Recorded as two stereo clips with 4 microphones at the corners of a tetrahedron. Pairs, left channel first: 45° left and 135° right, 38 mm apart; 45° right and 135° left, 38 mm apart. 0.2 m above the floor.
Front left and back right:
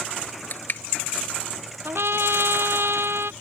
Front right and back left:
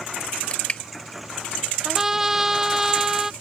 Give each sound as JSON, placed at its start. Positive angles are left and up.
{"t": 0.5, "sound": "crushing", "azimuth_deg": 10}
{"t": 1.9, "sound": "a trumpet", "azimuth_deg": -145}